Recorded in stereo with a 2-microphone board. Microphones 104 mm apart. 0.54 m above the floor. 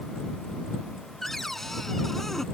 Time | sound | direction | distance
1.2 | a cupboard door | 5° left (ahead or behind) | ?